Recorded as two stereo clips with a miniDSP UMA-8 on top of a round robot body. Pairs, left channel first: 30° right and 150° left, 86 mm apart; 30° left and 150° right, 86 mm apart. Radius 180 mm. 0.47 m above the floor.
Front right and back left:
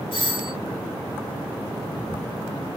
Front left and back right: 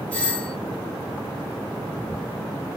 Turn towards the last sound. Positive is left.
turn(degrees=-45)